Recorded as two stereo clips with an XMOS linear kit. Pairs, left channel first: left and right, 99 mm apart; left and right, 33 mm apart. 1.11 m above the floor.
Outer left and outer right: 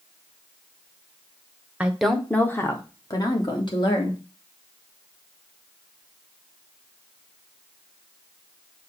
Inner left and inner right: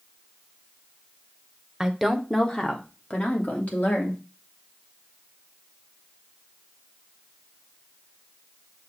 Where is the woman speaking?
15° right (ahead or behind), 0.9 m; by 4.2 s 50° left (ahead or behind), 2.5 m.